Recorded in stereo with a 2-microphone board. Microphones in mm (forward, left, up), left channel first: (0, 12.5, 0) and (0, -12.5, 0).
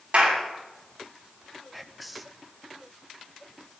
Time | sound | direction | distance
0.1 | a clap | 50° right (ahead or behind) | 8 m
1.7 | whispering | centre (ahead or behind) | 0.7 m